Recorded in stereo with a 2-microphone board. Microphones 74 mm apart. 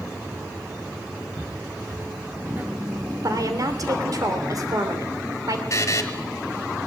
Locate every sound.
1.4 s footsteps: 40° right (ahead or behind), 3.5 m; by 3.1 s 15° right (ahead or behind), 3 m
3.2 s a woman speaking: 50° right (ahead or behind), 3 m
5.7 s a buzzer: 45° left (ahead or behind), 1.9 m